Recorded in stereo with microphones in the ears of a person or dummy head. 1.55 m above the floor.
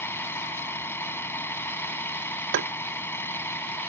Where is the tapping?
65° right (ahead or behind).